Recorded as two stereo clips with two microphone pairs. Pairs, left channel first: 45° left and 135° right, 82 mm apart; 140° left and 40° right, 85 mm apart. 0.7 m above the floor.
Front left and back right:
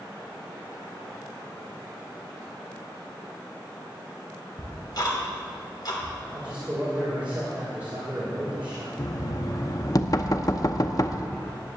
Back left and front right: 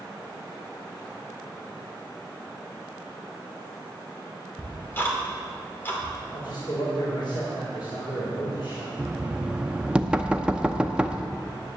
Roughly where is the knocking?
Ahead left.